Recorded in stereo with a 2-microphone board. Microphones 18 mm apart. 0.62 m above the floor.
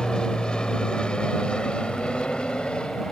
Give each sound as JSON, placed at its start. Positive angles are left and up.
{"t": 0.0, "sound": "an aircraft", "side_deg": 55}